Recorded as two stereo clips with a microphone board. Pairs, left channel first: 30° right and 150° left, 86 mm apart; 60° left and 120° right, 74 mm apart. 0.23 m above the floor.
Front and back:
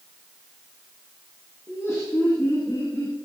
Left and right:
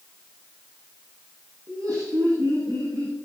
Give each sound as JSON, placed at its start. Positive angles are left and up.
{"t": 1.7, "sound": "laughter", "azimuth_deg": -85, "distance_m": 9.0}